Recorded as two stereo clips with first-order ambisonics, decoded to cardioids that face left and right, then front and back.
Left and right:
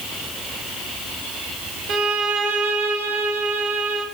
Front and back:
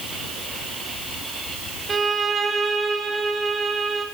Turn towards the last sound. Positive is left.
turn(degrees=-110)